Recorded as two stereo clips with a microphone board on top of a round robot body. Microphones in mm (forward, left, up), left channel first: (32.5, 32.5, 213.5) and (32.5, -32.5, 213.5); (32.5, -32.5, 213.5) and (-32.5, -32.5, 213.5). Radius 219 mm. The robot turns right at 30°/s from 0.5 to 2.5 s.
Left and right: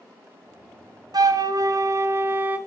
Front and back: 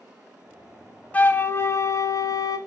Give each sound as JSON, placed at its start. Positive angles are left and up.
{"t": 1.1, "sound": "a flute", "azimuth_deg": -70, "distance_m": 0.9}